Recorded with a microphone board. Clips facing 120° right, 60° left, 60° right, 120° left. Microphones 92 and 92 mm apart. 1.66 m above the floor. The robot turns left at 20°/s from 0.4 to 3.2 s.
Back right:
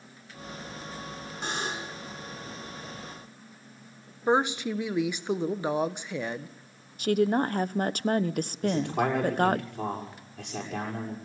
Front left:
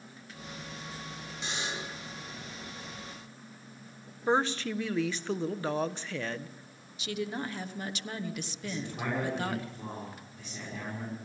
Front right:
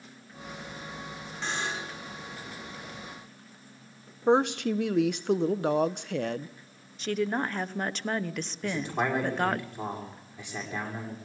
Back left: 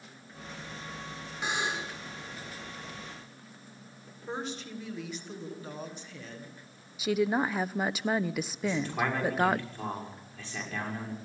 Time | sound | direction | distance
1.4 | a buzzer | 160° right | 5.5 m
4.3 | a woman speaking | 45° right | 1.1 m
7.0 | a woman speaking | 155° right | 0.9 m
8.6 | a man speaking | 135° right | 6.5 m